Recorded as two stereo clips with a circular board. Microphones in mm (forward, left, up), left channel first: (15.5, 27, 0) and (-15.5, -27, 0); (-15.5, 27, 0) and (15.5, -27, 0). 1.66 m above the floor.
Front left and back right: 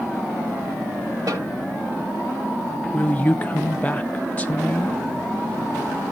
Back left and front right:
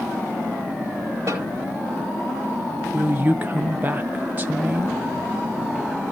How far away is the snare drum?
About 4.5 m.